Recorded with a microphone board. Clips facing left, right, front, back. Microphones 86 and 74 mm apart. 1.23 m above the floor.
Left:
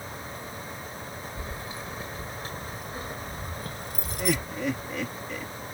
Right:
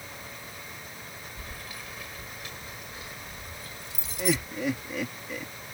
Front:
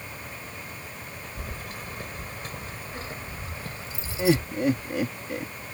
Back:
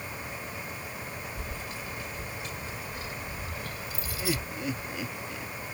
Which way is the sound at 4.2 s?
5° right.